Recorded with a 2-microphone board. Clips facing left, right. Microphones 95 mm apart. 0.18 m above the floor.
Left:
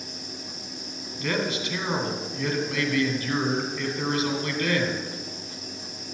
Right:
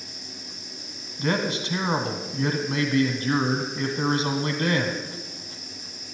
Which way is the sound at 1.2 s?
30° right (ahead or behind).